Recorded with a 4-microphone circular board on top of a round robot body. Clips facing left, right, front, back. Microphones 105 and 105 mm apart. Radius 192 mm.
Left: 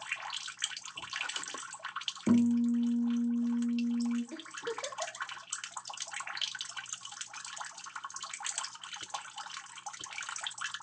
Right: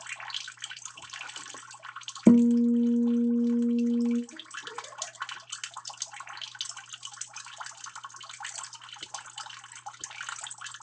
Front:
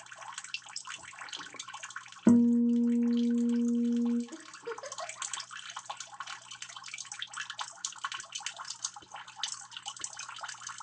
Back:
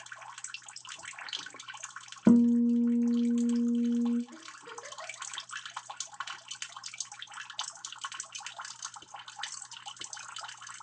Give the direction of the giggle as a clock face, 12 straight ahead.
10 o'clock.